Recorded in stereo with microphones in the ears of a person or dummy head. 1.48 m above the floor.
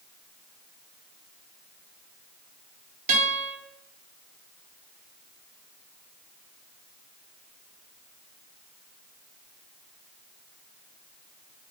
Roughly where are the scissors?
I don't hear scissors.